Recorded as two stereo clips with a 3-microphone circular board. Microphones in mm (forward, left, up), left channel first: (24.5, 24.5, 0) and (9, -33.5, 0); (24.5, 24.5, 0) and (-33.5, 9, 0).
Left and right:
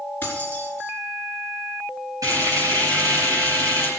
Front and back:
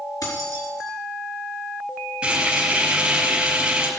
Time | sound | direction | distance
0.2 | keys jangling | 15° left | 4.5 m
2.2 | frying | 90° right | 6.5 m